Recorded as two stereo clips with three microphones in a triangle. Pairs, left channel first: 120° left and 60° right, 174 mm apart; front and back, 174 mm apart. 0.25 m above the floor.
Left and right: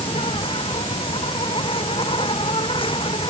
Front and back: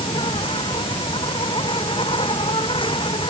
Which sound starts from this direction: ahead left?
An insect, at 0.0 s.